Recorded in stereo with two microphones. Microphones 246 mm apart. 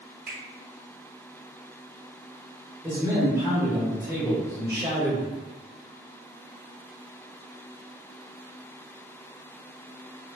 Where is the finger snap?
40° right (ahead or behind), 1.5 m.